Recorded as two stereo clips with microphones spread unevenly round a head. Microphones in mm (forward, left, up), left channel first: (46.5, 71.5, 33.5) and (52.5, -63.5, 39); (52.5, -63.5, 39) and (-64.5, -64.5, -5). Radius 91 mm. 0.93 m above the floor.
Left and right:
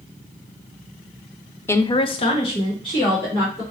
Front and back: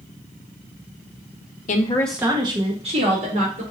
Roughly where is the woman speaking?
Ahead left.